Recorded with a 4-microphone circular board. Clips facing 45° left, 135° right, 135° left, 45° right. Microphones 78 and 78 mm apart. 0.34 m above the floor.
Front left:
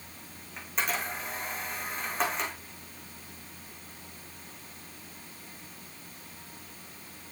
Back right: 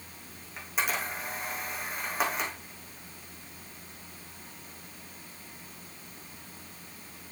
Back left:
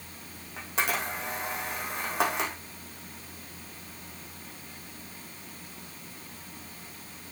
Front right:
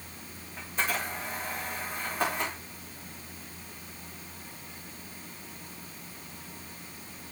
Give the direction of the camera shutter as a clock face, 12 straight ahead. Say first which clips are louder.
Even, back left 2 dB; 7 o'clock.